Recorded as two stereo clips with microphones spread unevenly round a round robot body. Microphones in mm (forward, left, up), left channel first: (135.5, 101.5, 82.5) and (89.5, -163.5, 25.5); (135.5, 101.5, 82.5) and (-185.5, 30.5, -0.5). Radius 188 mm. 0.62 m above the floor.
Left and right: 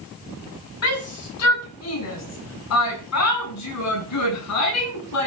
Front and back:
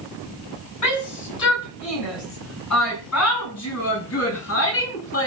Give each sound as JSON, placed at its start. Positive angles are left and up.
{"t": 0.8, "sound": "a shout", "azimuth_deg": 45, "distance_m": 7.5}